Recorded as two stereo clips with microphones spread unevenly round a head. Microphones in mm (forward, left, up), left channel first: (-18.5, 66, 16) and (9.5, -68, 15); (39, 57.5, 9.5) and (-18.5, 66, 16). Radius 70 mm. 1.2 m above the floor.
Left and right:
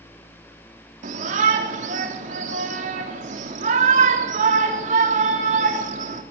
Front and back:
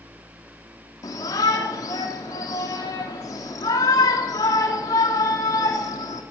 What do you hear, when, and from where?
1.0 s a shout: 45° right, 3 m